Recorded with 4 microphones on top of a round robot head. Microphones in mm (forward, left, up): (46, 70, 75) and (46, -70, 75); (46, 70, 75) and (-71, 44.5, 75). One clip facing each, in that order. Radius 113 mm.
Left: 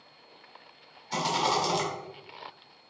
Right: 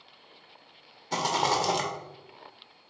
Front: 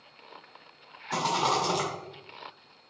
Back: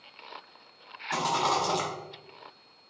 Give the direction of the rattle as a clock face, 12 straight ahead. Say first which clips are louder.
Right 1 dB, even; 3 o'clock.